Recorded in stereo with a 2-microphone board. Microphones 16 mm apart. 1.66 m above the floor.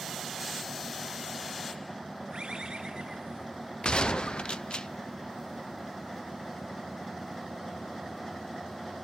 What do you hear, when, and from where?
2.3 s a bird: 65° right (ahead or behind), 3.5 m
3.8 s a gunshot: 70° left (ahead or behind), 0.7 m